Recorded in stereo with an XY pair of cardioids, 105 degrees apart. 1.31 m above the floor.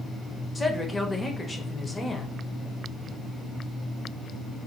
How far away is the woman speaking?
About 0.9 m.